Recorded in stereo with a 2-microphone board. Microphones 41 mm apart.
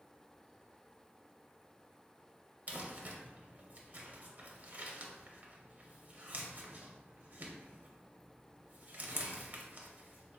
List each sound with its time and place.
2.7 s crumpling: 45° right (ahead or behind), 0.7 m